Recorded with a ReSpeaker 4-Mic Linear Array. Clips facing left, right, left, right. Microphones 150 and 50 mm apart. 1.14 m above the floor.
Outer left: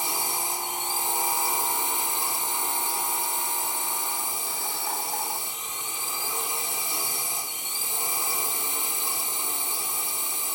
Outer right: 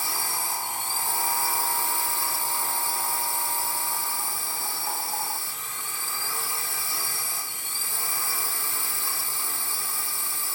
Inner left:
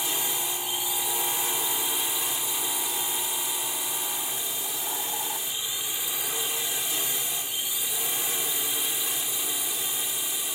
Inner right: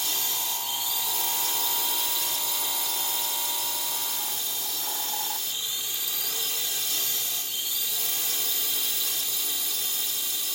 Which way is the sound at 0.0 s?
20° left (ahead or behind).